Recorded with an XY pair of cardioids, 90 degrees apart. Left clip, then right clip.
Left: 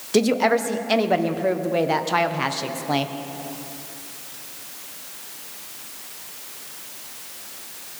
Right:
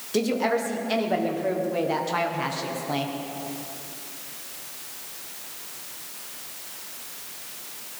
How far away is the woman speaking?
About 1.3 m.